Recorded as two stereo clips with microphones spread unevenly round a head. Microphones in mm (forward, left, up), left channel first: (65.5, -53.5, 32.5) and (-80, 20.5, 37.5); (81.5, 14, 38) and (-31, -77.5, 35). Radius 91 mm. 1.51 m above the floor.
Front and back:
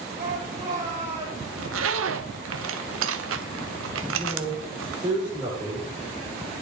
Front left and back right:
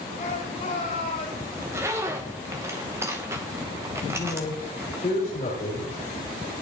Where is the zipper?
140° left, 1.0 m.